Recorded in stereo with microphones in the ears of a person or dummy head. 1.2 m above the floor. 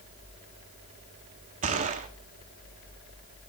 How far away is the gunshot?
About 1.4 m.